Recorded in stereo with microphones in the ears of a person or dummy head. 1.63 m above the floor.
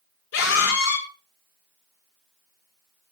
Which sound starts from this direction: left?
A scream, at 0.3 s.